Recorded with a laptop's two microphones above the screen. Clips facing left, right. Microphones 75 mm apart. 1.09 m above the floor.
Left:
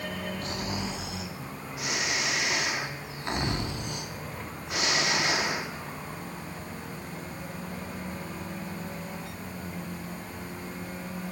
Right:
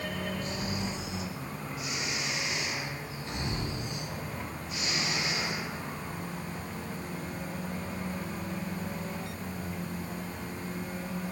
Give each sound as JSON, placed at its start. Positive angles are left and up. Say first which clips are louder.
{"t": 0.4, "sound": "snoring", "louder": "left 1 dB", "side_deg": 65, "distance_m": 2.5}